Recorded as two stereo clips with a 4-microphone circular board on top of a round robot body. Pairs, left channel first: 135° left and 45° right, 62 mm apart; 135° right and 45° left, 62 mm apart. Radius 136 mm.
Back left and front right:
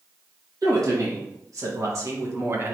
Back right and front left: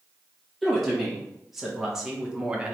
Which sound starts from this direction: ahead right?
A woman speaking, at 0.6 s.